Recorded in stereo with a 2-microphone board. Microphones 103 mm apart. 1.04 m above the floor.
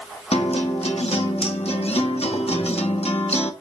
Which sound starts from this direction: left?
A guitar, at 0.3 s.